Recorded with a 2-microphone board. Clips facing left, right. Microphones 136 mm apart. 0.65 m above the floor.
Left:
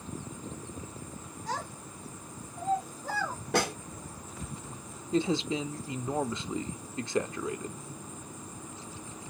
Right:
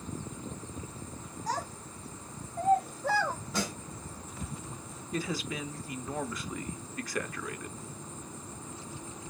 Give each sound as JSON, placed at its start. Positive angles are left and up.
{"t": 1.5, "sound": "a child speaking", "side_deg": -40, "distance_m": 3.0}
{"t": 3.5, "sound": "a snare drum", "side_deg": 65, "distance_m": 0.8}
{"t": 5.1, "sound": "a man speaking", "side_deg": 25, "distance_m": 0.5}